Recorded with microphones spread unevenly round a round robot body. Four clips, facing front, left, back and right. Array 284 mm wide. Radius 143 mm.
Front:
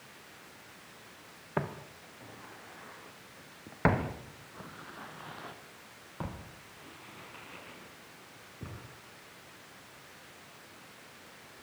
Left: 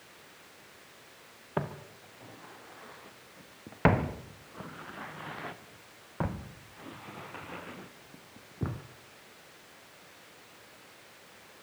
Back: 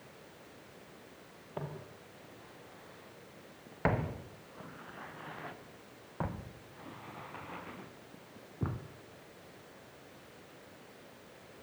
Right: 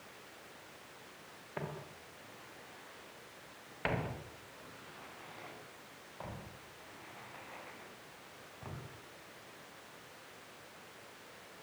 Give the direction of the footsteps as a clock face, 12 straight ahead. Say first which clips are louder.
Left 8 dB, front 7 dB; 11 o'clock.